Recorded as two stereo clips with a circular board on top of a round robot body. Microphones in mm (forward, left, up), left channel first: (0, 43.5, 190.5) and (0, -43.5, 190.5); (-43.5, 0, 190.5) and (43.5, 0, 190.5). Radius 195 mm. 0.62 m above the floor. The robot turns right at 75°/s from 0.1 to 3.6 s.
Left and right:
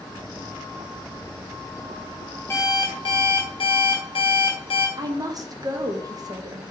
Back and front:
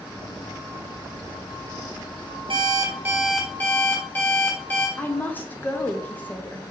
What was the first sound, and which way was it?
An alarm clock, 25° left.